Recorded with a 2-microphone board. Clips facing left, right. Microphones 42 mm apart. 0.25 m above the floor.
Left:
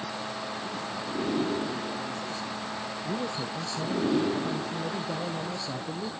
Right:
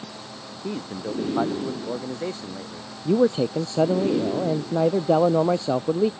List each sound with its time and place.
0.6 s a man speaking: 70° right (ahead or behind)
3.0 s a man speaking: 75° right (ahead or behind)